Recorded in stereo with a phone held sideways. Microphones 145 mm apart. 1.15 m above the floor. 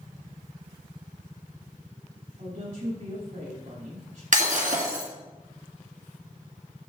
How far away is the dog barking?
No dog barking in this recording.